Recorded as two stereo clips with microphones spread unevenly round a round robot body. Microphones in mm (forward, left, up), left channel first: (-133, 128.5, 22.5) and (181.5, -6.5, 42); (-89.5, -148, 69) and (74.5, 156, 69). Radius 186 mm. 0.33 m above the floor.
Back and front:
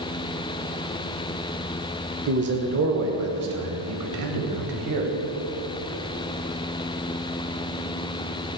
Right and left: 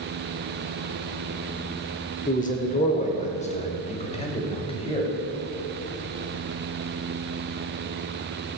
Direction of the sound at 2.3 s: 65° right.